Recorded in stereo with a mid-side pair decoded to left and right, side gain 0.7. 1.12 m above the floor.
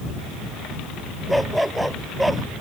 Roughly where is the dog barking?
Ahead.